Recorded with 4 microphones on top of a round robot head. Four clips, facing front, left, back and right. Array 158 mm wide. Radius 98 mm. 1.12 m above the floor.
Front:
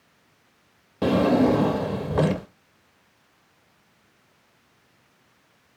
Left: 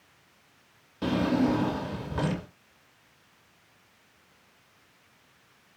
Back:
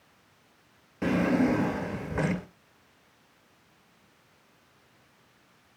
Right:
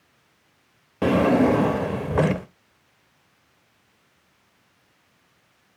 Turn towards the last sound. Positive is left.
turn(degrees=-60)